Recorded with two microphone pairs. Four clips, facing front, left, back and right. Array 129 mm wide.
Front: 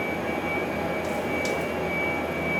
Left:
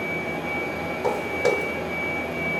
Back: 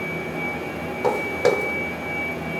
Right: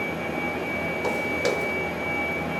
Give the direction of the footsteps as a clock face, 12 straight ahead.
6 o'clock.